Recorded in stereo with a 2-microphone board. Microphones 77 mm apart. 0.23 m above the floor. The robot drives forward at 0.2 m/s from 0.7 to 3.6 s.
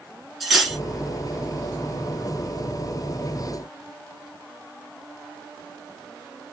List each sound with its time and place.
0.4 s cutlery clinking: centre (ahead or behind), 1.8 m